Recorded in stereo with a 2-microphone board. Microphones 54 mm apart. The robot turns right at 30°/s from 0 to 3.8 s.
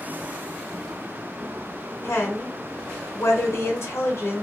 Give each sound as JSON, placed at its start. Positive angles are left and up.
{"t": 2.0, "sound": "a woman speaking", "azimuth_deg": 65, "distance_m": 1.5}